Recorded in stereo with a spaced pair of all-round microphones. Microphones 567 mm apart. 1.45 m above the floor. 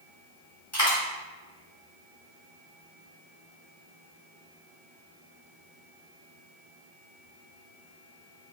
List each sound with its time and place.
0.7 s a dropped coin: 30° left (ahead or behind), 1.6 m